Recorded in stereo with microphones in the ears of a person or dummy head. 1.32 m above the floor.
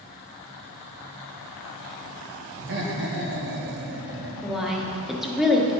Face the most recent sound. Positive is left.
turn(degrees=-5)  # may be behind; listen again after turning